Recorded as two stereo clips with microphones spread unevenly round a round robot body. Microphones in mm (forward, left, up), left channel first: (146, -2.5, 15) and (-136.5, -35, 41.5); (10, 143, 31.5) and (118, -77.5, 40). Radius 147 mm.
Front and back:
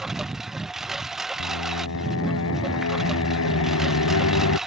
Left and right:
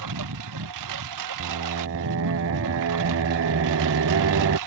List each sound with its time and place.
0.0 s a lawn mower: 85° right
1.4 s singing: 35° right